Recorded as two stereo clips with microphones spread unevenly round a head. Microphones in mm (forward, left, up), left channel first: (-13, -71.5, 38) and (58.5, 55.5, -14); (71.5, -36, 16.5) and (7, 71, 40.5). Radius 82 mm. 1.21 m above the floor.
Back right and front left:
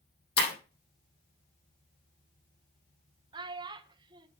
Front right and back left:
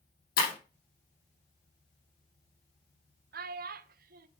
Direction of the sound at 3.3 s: 125° left.